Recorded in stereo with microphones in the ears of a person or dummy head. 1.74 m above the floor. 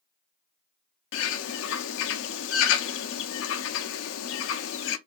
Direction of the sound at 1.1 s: 70° left (ahead or behind).